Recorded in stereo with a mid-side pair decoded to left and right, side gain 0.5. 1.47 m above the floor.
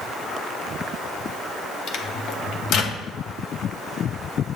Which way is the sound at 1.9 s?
65° left.